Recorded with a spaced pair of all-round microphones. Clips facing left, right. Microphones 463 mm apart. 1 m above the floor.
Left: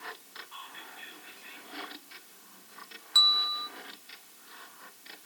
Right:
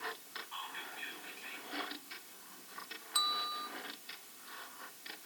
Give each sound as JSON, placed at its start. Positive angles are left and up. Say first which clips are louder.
{"t": 0.5, "sound": "whispering", "louder": "right 1 dB", "side_deg": 0, "distance_m": 6.0}
{"t": 3.1, "sound": "a bell", "louder": "left 2 dB", "side_deg": 40, "distance_m": 0.6}